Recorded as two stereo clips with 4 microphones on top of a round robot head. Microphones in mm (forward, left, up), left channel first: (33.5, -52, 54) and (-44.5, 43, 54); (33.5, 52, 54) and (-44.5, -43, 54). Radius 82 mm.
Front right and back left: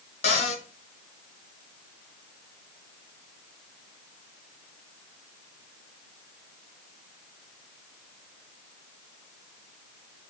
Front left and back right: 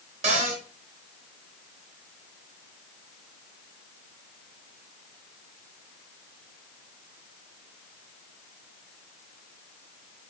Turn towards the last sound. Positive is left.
turn(degrees=-90)